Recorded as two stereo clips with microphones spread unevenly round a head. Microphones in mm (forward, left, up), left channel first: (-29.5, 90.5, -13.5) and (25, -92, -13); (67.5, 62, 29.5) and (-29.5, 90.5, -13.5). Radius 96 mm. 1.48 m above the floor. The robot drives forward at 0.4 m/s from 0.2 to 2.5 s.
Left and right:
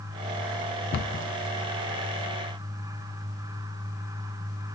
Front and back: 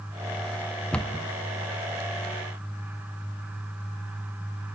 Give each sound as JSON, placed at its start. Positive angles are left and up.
{"t": 0.9, "sound": "a cupboard door", "azimuth_deg": 80, "distance_m": 0.6}